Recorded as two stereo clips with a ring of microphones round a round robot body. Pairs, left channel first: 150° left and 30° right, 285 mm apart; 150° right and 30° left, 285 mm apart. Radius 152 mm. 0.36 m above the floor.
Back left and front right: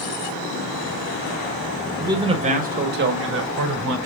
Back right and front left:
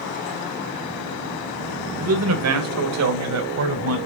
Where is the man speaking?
45° left, 1.8 m; by 4.0 s straight ahead, 3 m.